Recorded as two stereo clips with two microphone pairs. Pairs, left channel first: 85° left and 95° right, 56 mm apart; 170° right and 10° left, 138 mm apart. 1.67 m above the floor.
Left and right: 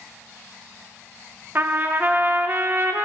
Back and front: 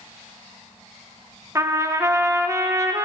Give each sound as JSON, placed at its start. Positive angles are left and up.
{"t": 1.6, "sound": "a trumpet", "azimuth_deg": -50, "distance_m": 0.9}